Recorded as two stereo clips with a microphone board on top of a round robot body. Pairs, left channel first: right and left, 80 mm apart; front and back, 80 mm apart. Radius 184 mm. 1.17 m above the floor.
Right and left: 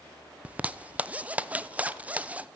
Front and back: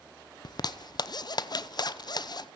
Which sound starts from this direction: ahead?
A zipper, at 0.5 s.